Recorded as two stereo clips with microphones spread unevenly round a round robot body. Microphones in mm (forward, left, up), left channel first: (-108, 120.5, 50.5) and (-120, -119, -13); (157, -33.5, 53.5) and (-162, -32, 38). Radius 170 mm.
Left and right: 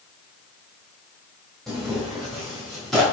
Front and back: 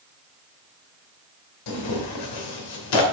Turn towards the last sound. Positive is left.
turn(degrees=-5)